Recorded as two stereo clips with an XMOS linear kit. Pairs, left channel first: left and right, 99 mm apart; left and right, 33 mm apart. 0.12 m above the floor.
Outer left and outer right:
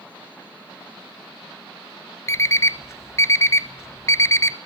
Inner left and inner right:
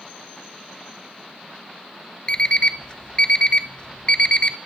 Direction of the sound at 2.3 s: 30° left (ahead or behind).